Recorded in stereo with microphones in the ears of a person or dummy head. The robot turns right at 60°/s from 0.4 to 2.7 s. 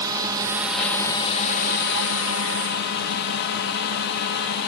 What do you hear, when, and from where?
0.0 s a drone: 20° right; by 4.7 s 115° left